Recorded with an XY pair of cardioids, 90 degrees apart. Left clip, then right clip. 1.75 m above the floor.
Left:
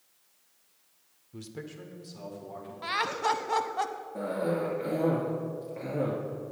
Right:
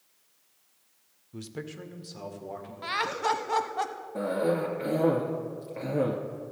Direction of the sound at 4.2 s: 40° right.